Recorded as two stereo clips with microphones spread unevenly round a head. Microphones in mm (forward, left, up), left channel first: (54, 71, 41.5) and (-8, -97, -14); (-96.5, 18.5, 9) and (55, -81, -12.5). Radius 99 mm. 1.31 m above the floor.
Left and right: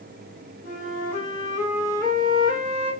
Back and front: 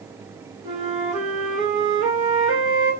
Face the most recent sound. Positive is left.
turn(degrees=25)